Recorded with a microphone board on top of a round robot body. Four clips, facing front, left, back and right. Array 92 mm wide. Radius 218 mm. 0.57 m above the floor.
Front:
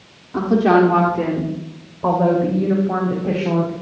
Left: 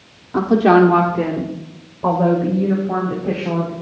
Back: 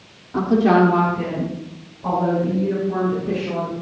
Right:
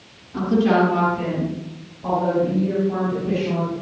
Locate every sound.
0.3 s a woman speaking: 95° left, 2.5 m; by 3.7 s 35° left, 6 m